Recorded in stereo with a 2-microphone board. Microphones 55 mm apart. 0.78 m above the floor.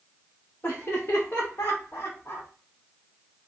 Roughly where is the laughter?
Left.